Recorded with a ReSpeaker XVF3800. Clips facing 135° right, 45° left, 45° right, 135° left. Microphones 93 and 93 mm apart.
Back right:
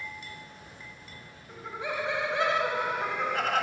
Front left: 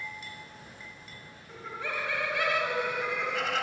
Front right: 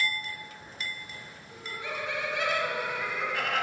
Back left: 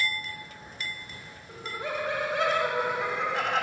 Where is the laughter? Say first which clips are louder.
Back right 2 dB, back left 4 dB; 150° left, 1.4 m; by 3.6 s 165° right, 1.8 m.